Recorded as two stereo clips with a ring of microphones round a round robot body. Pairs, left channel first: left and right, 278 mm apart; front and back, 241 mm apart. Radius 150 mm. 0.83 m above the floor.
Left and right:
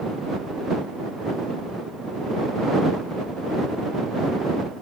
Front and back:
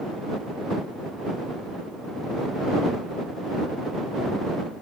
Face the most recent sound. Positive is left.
No sound to turn to.